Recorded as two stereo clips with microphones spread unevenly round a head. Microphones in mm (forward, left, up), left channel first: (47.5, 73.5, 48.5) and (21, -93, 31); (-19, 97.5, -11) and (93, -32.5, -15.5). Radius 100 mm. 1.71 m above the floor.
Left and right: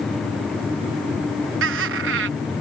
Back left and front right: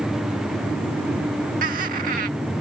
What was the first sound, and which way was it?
Laughter, 100° right.